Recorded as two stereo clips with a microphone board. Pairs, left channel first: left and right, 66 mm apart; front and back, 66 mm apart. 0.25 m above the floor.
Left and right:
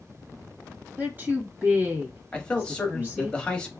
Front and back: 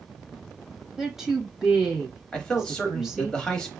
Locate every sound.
1.0 s a woman speaking: 105° right, 1.0 m
2.3 s a man speaking: 50° left, 0.9 m